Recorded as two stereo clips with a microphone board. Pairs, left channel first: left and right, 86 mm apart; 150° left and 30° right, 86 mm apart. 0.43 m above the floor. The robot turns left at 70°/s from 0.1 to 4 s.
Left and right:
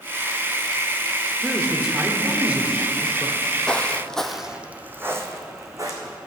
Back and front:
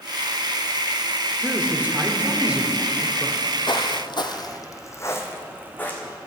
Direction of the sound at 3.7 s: 170° left.